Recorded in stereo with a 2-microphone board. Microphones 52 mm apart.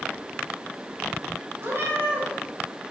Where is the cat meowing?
50° right (ahead or behind), 1.9 m.